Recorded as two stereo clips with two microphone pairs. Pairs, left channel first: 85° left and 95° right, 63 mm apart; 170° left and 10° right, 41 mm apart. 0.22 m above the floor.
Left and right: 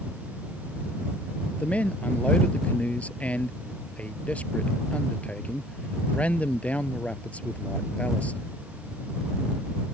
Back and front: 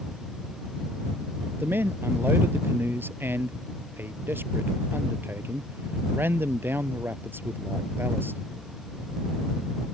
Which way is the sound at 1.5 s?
20° left.